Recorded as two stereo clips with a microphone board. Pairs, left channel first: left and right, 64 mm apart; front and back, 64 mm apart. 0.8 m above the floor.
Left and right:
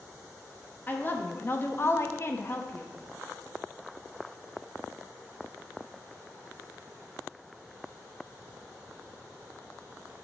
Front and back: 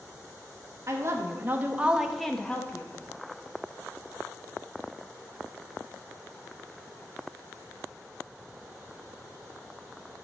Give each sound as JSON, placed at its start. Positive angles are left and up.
{"t": 0.9, "sound": "a woman speaking", "azimuth_deg": 145, "distance_m": 1.4}